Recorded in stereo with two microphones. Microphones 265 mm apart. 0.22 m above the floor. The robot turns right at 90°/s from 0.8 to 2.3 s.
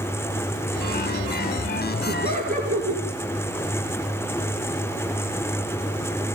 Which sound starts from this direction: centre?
Laughter, at 2.1 s.